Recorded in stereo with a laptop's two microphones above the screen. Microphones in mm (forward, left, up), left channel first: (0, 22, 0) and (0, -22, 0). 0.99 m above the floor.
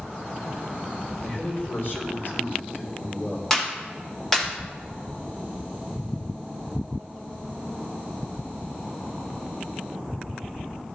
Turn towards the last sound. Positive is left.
turn(degrees=10)  # may be behind; listen again after turning